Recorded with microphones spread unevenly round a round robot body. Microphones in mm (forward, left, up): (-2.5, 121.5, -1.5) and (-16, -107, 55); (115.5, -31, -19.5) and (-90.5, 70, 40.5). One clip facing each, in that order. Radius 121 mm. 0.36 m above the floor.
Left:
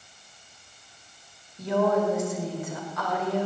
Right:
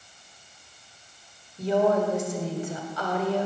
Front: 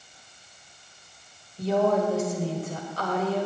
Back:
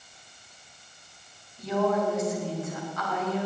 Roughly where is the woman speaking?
Ahead right.